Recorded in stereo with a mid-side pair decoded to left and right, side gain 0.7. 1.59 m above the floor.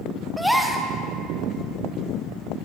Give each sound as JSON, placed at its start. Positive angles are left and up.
{"t": 0.4, "sound": "a gasp", "azimuth_deg": 5, "distance_m": 0.5}